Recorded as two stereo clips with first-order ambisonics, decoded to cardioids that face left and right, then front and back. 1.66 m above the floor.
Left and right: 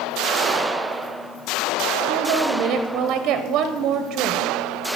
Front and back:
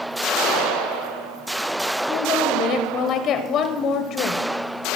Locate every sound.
2.1 s a woman speaking: 50° right, 0.8 m